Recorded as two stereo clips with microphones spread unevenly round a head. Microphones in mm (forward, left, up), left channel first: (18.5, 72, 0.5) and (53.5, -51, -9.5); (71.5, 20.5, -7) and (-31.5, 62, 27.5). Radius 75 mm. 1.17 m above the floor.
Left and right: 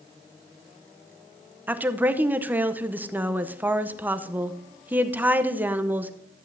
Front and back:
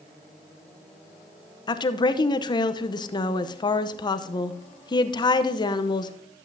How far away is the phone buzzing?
No phone buzzing in this recording.